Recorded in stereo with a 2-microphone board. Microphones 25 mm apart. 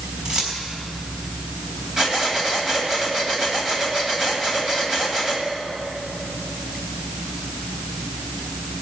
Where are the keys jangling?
35° right (ahead or behind), 3.5 m.